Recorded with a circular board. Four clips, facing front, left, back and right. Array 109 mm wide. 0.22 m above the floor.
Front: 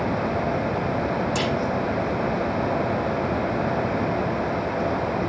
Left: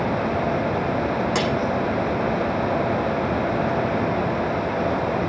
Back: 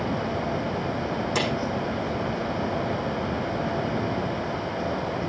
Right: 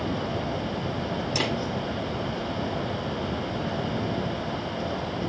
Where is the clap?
95° left, 8 m.